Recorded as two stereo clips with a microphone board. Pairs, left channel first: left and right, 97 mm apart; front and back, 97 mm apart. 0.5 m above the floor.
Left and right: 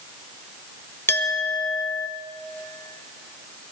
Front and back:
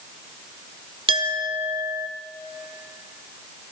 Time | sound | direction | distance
1.1 | a clink | 155° left | 1.3 m